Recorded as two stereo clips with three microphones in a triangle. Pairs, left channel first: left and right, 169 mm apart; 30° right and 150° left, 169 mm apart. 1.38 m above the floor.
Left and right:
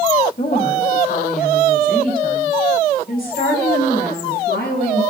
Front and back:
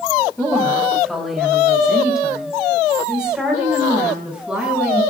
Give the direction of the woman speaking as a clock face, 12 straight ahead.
10 o'clock.